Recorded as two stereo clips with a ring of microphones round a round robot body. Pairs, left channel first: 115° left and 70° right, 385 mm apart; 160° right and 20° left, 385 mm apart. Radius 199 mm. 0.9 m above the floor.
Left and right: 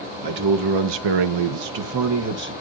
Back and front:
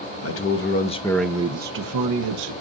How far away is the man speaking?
About 1.5 m.